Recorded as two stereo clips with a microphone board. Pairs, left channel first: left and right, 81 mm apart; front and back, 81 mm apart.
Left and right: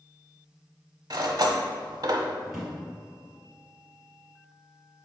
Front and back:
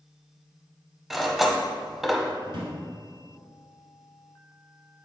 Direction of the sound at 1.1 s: 95° right.